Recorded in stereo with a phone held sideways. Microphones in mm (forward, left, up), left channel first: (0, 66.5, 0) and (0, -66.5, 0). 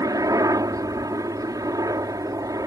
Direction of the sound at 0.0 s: 25° right (ahead or behind).